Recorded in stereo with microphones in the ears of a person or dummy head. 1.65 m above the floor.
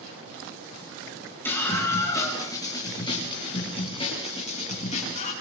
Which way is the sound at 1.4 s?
5° left (ahead or behind).